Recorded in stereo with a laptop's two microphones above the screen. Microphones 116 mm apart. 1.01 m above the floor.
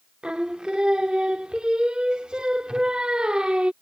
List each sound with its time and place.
0.2 s singing: 10° right (ahead or behind)